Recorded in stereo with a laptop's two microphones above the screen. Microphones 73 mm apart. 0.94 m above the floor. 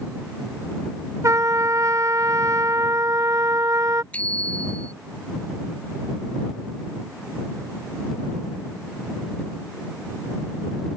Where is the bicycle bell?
20° left (ahead or behind).